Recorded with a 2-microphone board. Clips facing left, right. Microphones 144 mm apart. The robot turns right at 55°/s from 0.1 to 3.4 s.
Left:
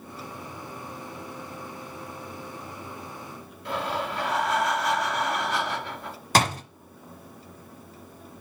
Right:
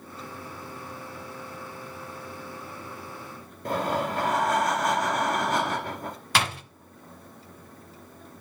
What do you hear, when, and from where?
3.6 s breathing: 45° right (ahead or behind), 1.9 m
6.3 s a door slam: 40° left (ahead or behind), 0.9 m